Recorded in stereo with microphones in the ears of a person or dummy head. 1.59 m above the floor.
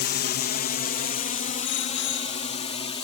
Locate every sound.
0.0 s a drone: 45° left (ahead or behind); by 3.1 s 25° left (ahead or behind)
1.6 s a bicycle bell: 70° left (ahead or behind)